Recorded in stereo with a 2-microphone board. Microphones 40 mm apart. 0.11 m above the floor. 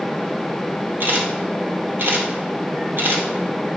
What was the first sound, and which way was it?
A camera shutter, 60° right (ahead or behind).